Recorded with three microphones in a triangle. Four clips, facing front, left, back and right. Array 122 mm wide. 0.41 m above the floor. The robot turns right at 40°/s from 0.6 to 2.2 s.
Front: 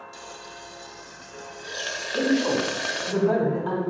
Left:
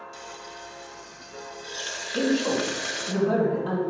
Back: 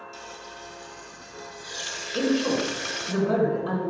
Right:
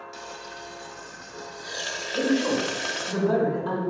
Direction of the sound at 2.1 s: Straight ahead.